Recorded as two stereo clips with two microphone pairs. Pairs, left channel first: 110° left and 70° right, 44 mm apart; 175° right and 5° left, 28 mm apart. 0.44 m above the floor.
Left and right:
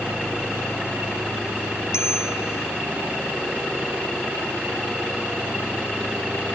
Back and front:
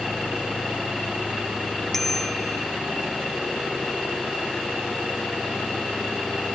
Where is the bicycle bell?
105° left.